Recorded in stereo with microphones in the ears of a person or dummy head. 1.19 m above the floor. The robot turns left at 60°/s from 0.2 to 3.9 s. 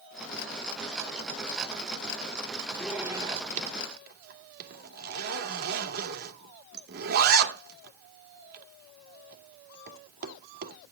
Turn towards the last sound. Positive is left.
turn(degrees=-60)  # may be behind; listen again after turning